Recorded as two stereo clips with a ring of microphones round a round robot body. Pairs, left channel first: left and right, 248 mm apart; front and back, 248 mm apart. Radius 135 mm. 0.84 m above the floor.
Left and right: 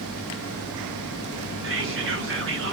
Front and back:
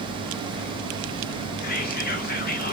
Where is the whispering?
55° right, 1.0 m.